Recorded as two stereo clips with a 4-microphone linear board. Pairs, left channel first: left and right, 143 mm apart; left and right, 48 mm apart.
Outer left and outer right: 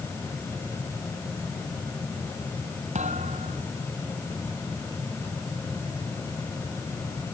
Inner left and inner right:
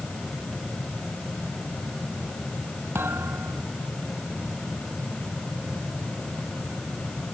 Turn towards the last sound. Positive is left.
turn(degrees=-55)  # may be behind; listen again after turning